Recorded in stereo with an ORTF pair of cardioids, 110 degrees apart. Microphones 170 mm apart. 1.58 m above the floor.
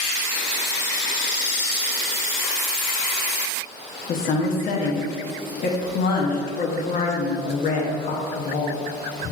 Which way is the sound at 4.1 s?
60° left.